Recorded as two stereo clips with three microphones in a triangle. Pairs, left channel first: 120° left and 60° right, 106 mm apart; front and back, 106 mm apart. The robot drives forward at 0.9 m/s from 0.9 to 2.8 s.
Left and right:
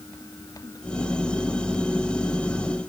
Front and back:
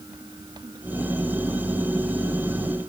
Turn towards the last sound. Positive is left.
No sound to turn to.